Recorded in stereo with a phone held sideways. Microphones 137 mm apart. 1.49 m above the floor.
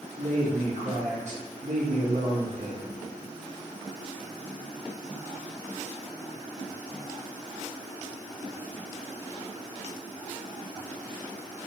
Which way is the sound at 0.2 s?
60° right (ahead or behind).